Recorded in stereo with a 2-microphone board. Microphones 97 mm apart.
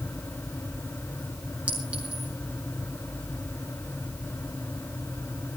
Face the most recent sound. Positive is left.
turn(degrees=-15)  # may be behind; listen again after turning